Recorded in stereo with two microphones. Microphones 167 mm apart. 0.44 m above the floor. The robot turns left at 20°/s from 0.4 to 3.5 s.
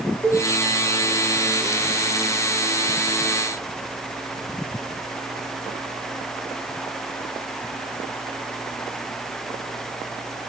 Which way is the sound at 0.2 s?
15° right (ahead or behind).